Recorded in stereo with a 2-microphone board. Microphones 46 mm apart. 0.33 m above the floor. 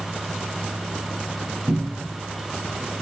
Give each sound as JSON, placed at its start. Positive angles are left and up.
{"t": 1.7, "sound": "a cupboard door", "side_deg": -70, "distance_m": 2.0}